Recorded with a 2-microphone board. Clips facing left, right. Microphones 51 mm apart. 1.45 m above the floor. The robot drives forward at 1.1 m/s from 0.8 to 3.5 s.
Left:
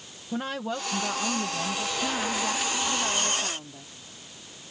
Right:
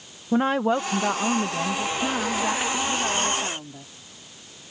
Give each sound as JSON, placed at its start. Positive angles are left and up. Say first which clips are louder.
{"t": 0.3, "sound": "a woman speaking", "louder": "right 10 dB", "side_deg": -35}